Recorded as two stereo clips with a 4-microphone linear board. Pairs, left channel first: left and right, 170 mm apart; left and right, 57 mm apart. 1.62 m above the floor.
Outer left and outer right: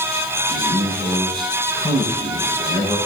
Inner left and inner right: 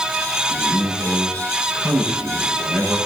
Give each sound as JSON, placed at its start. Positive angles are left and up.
{"t": 0.5, "sound": "a man speaking", "side_deg": 25, "distance_m": 7.5}